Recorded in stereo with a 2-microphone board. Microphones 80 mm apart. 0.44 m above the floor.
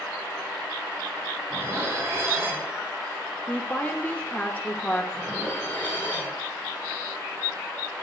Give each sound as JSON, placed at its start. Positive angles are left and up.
{"t": 1.5, "sound": "dishes clattering", "side_deg": -35, "distance_m": 2.0}
{"t": 3.5, "sound": "a woman speaking", "side_deg": 15, "distance_m": 0.9}
{"t": 5.1, "sound": "dishes clattering", "side_deg": 25, "distance_m": 4.0}